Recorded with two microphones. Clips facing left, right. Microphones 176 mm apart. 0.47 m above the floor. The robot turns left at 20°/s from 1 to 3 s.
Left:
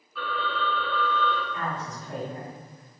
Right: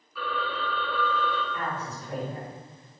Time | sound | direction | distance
0.1 | a phone ringing | centre (ahead or behind) | 1.0 m
1.5 | a woman speaking | centre (ahead or behind) | 2.0 m